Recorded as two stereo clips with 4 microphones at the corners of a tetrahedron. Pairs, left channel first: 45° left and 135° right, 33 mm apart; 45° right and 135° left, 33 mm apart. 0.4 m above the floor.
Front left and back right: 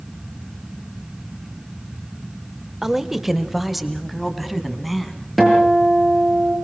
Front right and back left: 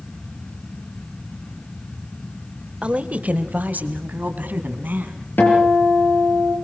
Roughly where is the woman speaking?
Behind left.